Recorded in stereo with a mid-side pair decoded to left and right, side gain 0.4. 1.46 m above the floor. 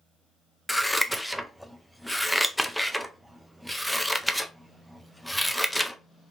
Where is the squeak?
I don't hear a squeak.